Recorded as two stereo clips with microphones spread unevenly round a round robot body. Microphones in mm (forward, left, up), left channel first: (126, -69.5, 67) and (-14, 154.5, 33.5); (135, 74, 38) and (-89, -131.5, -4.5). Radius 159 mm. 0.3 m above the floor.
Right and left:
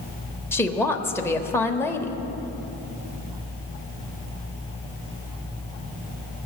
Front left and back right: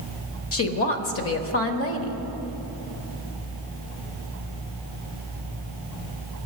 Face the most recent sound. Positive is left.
turn(degrees=30)